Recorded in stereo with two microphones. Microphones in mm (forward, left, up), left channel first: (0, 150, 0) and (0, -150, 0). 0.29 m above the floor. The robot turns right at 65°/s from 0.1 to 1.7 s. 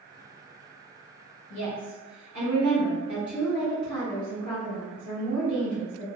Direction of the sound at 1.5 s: 40° left (ahead or behind).